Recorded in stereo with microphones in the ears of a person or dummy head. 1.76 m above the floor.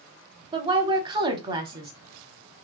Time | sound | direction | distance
0.5 | a woman speaking | 25° right (ahead or behind) | 0.6 m